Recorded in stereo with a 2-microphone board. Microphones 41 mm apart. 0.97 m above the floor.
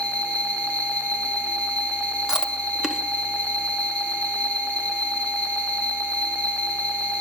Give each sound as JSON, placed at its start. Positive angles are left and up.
{"t": 0.0, "sound": "an insect", "side_deg": 30, "distance_m": 3.5}
{"t": 2.3, "sound": "chewing", "side_deg": -20, "distance_m": 1.2}